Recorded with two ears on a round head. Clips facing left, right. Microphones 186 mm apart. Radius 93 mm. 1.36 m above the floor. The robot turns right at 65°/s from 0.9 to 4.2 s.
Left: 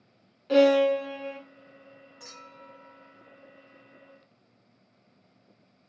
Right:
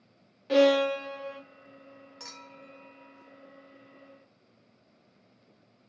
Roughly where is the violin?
Ahead.